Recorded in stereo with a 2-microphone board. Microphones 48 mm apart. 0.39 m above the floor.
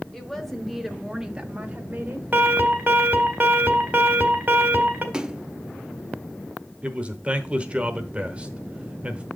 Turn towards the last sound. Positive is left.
turn(degrees=-25)  # may be behind; listen again after turning